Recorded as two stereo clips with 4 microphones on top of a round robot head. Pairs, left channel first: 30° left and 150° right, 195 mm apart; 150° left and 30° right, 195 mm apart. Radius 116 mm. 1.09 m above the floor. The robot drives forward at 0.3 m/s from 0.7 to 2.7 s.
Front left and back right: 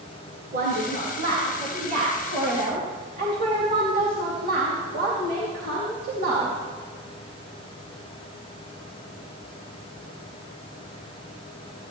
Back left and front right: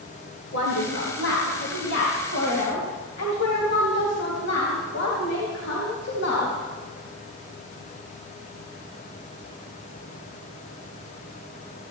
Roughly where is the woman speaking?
Behind.